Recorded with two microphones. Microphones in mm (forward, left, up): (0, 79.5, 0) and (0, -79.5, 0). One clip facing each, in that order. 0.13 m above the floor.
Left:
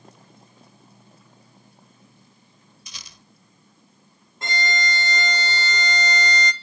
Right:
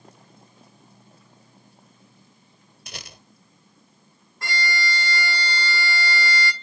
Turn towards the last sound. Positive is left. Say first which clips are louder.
# left 1 dB
turn(degrees=20)  # may be behind; listen again after turning